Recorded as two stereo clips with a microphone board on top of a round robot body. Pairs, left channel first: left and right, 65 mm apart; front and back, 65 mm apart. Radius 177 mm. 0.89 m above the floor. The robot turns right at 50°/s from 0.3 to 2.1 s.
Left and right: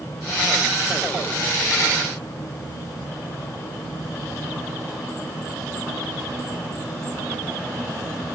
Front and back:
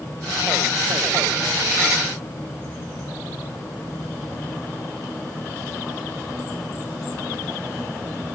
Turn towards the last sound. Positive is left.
No sound to turn to.